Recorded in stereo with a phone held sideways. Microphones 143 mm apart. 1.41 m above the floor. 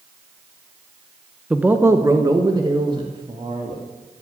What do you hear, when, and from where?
1.5 s a man speaking: 5° right (ahead or behind), 0.9 m; by 3.8 s 40° right (ahead or behind), 2.5 m